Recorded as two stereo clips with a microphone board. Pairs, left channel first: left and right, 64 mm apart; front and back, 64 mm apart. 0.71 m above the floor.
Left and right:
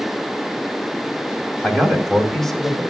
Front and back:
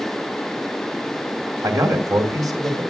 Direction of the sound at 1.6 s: 175° left.